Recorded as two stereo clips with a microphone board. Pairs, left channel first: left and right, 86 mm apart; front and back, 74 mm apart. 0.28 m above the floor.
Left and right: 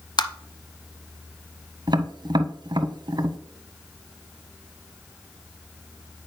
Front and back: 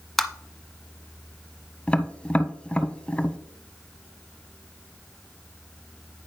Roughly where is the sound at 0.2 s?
Left.